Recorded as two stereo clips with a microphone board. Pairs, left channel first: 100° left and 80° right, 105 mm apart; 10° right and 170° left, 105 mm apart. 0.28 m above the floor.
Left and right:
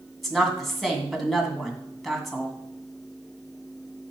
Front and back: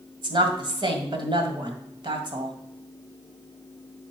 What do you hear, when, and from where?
0.2 s a woman speaking: 170° right, 1.9 m